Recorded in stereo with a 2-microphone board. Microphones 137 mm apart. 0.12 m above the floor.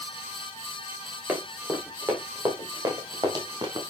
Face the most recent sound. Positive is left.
turn(degrees=-35)  # may be behind; listen again after turning